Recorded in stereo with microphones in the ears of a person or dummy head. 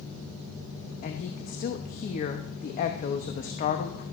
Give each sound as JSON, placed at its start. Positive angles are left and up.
{"t": 1.0, "sound": "a woman speaking", "side_deg": 40, "distance_m": 0.7}